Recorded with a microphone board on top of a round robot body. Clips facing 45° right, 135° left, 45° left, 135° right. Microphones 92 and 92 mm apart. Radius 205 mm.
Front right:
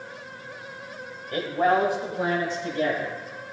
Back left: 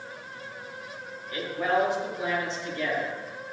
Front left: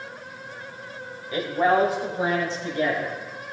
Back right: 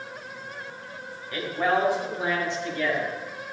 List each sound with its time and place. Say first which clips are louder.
1.3 s a man speaking: front right 4 dB, front left 4 dB; 15° right, 2 m; by 3.2 s 5° right, 3.5 m